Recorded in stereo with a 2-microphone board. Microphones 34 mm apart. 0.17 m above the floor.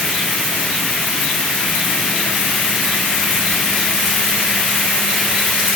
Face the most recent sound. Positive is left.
No sound to turn to.